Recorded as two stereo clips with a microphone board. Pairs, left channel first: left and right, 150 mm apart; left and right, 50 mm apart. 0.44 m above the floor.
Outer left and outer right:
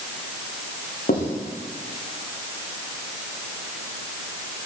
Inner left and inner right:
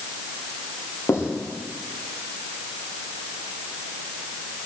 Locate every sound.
1.1 s writing: 75° left (ahead or behind), 9.5 m